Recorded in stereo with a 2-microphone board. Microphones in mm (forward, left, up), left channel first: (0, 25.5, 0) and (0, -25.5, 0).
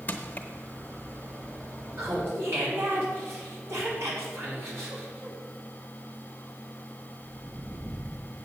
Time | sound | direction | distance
0.1 | crushing | 35° left (ahead or behind) | 1.0 m
2.0 | laughter | 60° right (ahead or behind) | 4.5 m